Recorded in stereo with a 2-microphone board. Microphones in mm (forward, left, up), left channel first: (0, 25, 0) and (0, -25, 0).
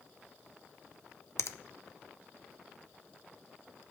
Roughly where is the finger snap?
Left.